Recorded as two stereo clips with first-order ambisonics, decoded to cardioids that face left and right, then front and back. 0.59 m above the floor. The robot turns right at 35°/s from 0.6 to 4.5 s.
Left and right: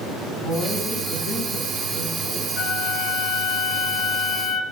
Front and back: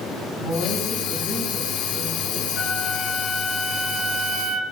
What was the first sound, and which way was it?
A woman speaking, 40° left.